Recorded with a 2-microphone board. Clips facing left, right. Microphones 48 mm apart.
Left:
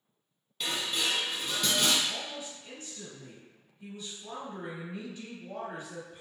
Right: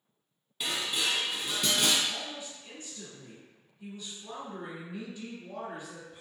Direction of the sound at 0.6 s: 5° right (ahead or behind).